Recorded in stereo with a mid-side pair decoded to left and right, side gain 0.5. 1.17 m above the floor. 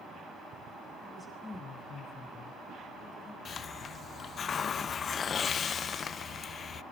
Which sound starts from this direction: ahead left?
A hiss, at 3.5 s.